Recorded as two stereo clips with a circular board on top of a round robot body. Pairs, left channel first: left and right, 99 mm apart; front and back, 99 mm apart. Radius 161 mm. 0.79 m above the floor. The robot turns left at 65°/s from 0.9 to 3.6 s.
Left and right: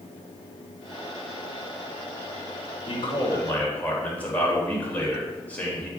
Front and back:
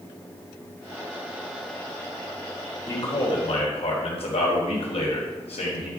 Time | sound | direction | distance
2.9 | a man speaking | 65° left | 4 m